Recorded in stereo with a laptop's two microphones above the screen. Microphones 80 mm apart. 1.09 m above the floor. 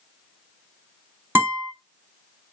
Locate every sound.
1.4 s a guitar: 30° right (ahead or behind), 2 m